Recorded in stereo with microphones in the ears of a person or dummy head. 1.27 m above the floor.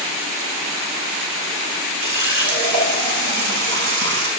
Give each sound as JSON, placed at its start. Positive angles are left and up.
{"t": 2.0, "sound": "a running tap", "side_deg": -65, "distance_m": 8.5}